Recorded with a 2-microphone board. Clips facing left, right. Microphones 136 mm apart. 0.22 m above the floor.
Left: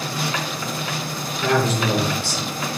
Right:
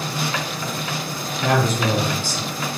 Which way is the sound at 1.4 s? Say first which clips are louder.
Even; 45° right (ahead or behind).